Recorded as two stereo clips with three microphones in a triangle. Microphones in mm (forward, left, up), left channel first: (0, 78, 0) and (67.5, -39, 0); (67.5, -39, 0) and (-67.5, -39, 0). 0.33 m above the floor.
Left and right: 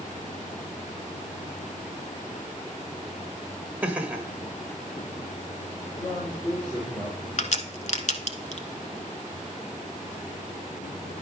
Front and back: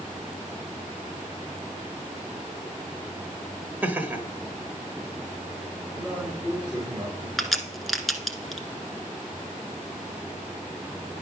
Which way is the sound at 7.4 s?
90° left.